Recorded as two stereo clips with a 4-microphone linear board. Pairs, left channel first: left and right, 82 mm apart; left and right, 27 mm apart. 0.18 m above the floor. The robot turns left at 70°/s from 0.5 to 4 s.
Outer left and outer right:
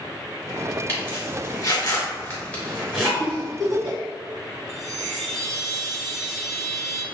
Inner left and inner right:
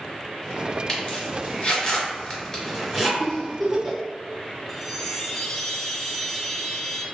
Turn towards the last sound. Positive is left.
turn(degrees=-5)  # may be behind; listen again after turning